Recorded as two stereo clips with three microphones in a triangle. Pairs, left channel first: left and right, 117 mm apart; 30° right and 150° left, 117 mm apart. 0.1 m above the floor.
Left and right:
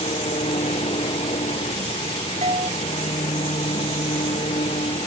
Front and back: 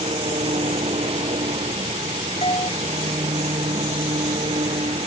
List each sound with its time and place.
0.0 s an engine running: 120° left
2.4 s a doorbell: 65° right